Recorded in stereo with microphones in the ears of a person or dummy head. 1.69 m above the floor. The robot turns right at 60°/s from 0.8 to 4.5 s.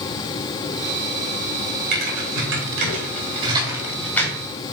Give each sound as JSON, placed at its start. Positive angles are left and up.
{"t": 1.9, "sound": "typing on a keyboard", "side_deg": -55, "distance_m": 4.0}